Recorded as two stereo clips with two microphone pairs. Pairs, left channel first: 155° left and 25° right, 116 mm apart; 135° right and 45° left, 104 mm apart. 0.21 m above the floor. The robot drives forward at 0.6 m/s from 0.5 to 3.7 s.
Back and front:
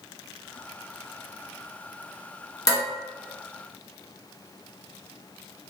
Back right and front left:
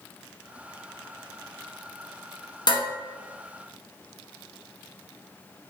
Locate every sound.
2.7 s dishes clattering: 155° right, 1.5 m; by 2.8 s 160° right, 1.6 m